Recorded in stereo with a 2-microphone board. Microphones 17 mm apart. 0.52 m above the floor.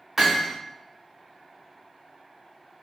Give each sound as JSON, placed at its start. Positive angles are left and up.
{"t": 0.2, "sound": "hammering", "side_deg": -15, "distance_m": 1.7}